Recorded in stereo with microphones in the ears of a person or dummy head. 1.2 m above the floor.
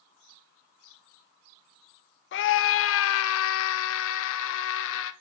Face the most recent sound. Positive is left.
turn(degrees=70)  # may be behind; listen again after turning